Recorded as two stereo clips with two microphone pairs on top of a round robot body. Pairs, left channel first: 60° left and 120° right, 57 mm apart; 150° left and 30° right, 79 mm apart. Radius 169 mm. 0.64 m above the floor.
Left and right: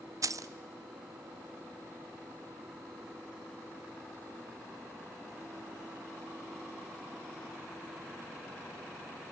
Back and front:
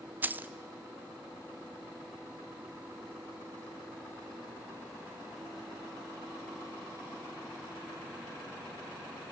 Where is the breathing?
No breathing in this recording.